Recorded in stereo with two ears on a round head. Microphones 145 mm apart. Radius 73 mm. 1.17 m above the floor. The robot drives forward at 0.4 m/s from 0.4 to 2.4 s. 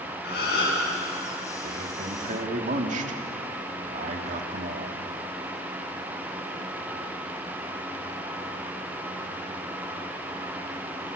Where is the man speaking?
55° right (ahead or behind), 2.5 m; by 5.0 s 50° right (ahead or behind), 2.5 m.